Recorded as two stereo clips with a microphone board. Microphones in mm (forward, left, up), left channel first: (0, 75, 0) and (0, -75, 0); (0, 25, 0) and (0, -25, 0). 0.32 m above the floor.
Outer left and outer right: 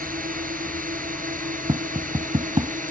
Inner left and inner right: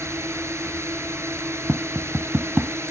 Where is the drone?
65° right (ahead or behind); by 2.9 s 60° right (ahead or behind).